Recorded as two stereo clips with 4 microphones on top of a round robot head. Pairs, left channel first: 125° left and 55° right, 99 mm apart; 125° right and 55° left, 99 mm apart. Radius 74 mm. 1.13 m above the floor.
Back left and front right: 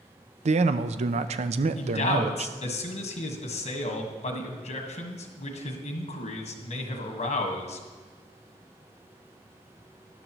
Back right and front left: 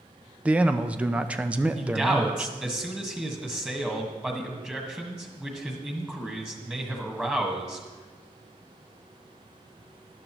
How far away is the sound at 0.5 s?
About 0.5 m.